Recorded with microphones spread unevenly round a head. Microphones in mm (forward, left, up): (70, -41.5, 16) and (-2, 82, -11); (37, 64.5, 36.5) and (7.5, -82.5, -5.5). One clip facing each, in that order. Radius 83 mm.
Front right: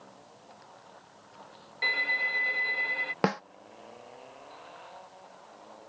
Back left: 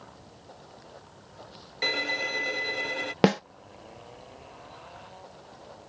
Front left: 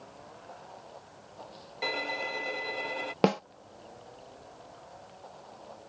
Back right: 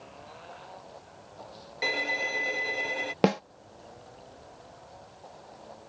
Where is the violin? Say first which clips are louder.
Back left 5 dB, back right 1 dB; 170° left.